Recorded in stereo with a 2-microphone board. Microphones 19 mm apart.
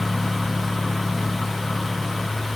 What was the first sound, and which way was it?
Only background noise.